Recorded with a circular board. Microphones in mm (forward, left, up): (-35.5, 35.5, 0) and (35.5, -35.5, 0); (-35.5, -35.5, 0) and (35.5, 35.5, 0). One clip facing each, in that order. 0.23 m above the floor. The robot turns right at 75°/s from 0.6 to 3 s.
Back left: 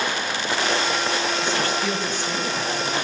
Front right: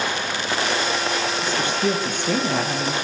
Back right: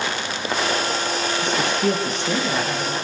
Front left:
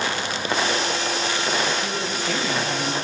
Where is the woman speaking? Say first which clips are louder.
Front right 1 dB, back right 3 dB; 130° right, 6.5 m; by 2.9 s 15° right, 6.5 m.